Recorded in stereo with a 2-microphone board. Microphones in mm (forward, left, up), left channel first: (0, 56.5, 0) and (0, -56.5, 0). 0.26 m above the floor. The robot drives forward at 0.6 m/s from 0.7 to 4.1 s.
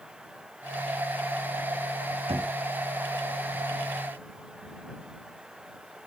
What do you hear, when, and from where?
2.3 s knocking: 60° right (ahead or behind), 1.2 m